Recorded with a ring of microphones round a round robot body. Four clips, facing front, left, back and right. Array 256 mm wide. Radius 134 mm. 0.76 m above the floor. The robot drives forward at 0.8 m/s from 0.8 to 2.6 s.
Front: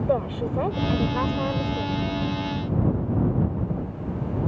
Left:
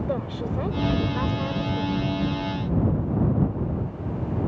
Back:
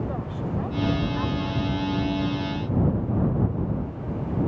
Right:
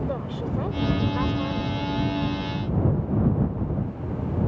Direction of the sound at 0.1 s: 10° left.